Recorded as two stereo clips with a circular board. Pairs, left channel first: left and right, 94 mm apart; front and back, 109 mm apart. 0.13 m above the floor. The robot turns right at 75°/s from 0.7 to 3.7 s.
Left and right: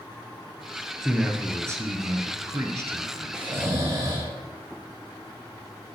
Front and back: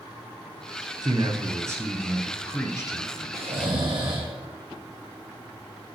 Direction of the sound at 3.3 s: 170° right.